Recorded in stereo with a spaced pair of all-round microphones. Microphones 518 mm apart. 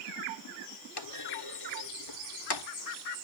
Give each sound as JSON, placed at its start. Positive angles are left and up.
{"t": 1.0, "sound": "a clunk", "side_deg": 50}